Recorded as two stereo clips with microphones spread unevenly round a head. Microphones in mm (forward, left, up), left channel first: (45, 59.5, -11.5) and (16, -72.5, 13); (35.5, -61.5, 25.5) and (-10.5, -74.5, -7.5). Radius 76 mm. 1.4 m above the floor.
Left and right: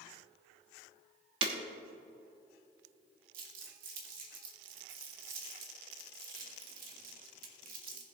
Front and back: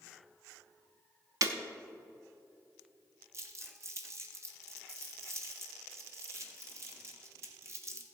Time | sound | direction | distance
1.4 | breaking glass | 135° right | 1.1 m
3.3 | crumpling | 125° right | 1.8 m